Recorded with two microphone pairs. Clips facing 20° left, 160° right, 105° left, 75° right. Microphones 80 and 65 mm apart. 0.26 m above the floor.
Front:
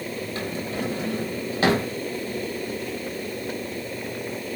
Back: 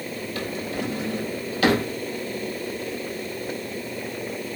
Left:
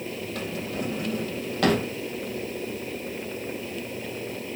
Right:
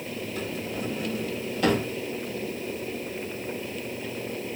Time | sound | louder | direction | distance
0.3 | a drawer | back 1 dB, left 1 dB | 80° left | 4 m